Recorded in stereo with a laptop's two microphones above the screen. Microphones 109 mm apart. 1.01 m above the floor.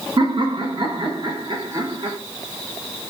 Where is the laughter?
50° right (ahead or behind), 0.9 m.